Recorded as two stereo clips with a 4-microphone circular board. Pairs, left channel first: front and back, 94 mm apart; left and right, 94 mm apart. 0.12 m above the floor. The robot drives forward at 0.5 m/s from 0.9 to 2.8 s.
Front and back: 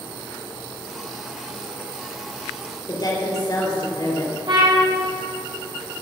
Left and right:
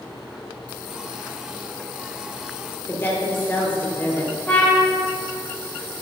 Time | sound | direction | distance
2.9 | a woman speaking | 30° left | 3 m
4.5 | a trumpet | 165° left | 3.5 m